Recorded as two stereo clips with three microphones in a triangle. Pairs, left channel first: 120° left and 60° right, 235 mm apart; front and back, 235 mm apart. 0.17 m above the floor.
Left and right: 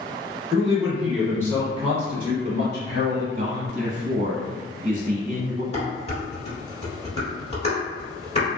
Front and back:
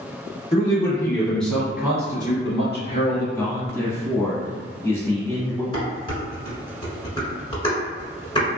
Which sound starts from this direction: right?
A man speaking, at 3.4 s.